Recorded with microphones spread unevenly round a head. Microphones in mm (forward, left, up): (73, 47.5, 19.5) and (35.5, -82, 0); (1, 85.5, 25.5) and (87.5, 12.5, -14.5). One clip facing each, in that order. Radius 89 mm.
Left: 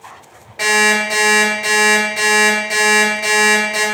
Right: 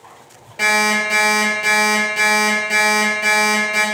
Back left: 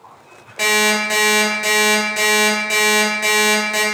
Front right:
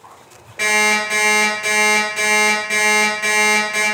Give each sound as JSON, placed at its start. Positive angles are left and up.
{"t": 0.6, "sound": "an alarm clock", "azimuth_deg": 170, "distance_m": 0.8}